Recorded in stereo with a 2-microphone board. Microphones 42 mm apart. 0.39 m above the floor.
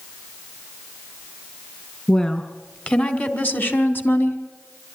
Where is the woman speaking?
20° left (ahead or behind), 3.5 m; by 4.4 s 60° left (ahead or behind), 3 m.